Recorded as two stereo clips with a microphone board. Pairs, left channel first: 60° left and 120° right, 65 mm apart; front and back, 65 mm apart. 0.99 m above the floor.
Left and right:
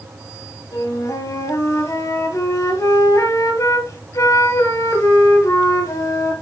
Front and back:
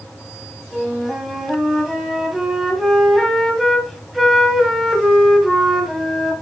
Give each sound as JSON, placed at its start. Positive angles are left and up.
{"t": 0.7, "sound": "a flute", "azimuth_deg": 95, "distance_m": 1.8}